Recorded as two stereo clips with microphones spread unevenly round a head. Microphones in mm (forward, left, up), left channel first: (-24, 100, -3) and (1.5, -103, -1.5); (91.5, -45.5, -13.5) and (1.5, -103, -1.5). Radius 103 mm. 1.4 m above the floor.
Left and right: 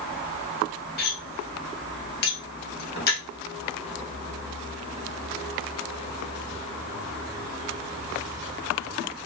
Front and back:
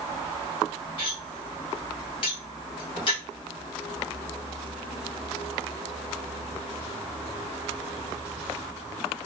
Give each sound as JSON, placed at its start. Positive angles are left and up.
{"t": 1.0, "sound": "cutlery clinking", "azimuth_deg": 70, "distance_m": 0.9}